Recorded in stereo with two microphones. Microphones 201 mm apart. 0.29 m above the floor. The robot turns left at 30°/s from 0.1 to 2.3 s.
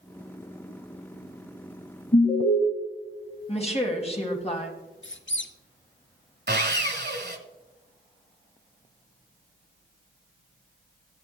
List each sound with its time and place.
2.1 s an alarm: 55° left (ahead or behind), 3 m; by 2.6 s 50° left (ahead or behind), 3 m
3.5 s a woman speaking: 30° left (ahead or behind), 1.6 m
5.0 s a squeak: 75° left (ahead or behind), 0.7 m
6.5 s sawing: 60° right (ahead or behind), 0.8 m